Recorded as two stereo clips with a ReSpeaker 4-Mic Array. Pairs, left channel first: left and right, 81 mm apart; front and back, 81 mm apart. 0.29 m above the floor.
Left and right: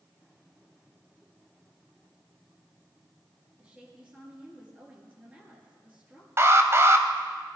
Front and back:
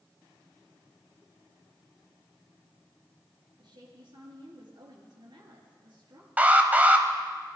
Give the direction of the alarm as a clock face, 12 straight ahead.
4 o'clock.